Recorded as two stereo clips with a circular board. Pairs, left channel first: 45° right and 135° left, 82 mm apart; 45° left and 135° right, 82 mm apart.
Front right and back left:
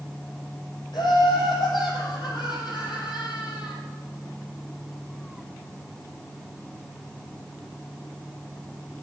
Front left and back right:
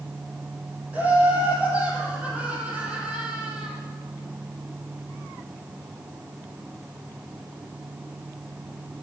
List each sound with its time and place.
0.9 s laughter: 65° right, 5 m; by 3.8 s 55° right, 3.5 m